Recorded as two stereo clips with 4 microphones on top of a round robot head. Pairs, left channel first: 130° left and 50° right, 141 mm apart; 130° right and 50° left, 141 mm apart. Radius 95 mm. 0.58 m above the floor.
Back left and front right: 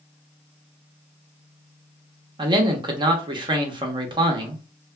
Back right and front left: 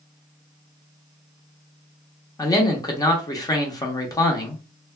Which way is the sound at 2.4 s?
85° right.